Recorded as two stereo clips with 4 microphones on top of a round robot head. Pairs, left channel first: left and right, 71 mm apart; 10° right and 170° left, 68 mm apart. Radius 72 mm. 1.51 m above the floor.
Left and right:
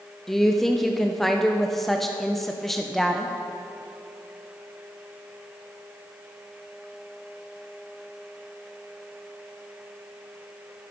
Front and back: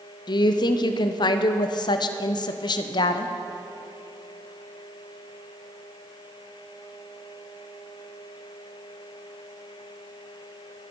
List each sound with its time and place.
0.3 s a woman speaking: straight ahead, 0.7 m